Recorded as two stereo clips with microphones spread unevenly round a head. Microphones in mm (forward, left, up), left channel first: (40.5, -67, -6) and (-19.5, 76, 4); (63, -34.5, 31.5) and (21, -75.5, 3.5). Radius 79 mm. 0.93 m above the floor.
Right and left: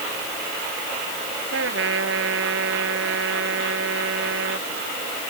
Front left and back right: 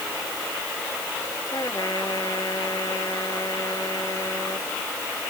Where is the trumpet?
110° left.